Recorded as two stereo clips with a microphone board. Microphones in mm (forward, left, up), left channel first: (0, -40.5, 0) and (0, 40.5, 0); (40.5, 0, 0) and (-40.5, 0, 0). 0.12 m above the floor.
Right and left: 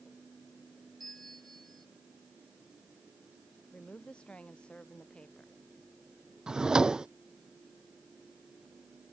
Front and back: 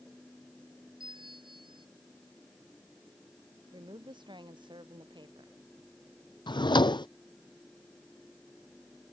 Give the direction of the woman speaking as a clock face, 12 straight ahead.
6 o'clock.